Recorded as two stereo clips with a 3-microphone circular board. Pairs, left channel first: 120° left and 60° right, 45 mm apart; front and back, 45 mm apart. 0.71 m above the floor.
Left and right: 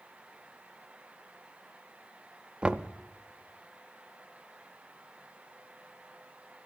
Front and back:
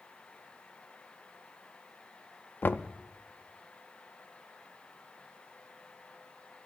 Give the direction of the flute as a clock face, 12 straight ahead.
I don't hear a flute.